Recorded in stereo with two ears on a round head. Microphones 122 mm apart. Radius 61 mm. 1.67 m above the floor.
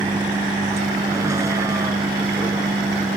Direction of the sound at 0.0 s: 20° right (ahead or behind).